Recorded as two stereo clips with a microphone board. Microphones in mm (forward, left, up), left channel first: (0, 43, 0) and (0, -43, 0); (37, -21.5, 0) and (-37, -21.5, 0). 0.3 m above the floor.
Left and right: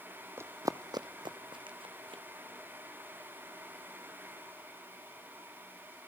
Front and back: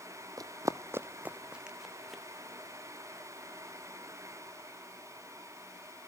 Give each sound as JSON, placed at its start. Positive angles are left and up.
{"t": 0.4, "sound": "running footsteps", "azimuth_deg": -150, "distance_m": 0.9}